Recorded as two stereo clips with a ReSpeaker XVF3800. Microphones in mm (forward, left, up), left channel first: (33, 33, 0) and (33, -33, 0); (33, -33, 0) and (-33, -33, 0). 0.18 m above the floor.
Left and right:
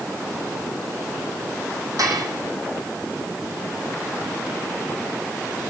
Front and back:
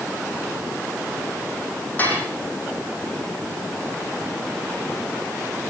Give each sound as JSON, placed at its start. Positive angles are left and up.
{"t": 2.0, "sound": "dishes clattering", "azimuth_deg": -65, "distance_m": 6.0}